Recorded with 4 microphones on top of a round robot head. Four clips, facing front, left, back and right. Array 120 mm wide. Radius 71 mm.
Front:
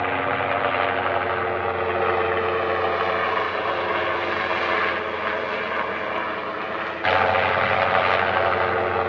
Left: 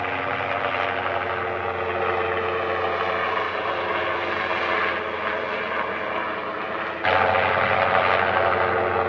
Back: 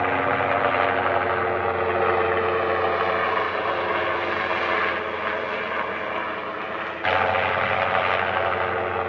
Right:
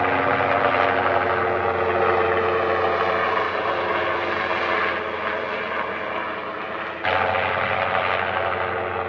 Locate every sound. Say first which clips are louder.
0.0 s a helicopter: right 6 dB, back 1 dB; 100° right; by 9.1 s 55° left